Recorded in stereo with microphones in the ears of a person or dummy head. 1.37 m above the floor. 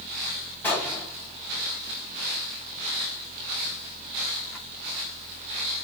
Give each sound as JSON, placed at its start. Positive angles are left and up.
{"t": 0.6, "sound": "a gunshot", "side_deg": 15, "distance_m": 1.1}